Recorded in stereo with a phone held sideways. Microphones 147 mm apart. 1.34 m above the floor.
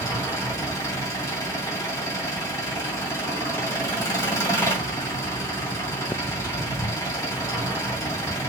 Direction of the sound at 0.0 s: 20° left (ahead or behind).